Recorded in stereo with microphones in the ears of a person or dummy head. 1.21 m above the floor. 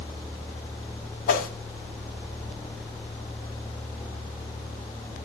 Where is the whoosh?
55° left (ahead or behind), 3 m.